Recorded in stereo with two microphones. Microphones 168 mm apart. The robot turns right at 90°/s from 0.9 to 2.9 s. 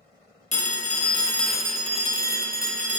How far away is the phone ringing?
About 1.1 m.